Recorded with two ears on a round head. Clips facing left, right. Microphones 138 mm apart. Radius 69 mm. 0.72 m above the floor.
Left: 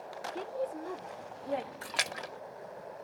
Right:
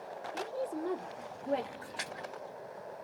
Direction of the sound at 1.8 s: 80° left.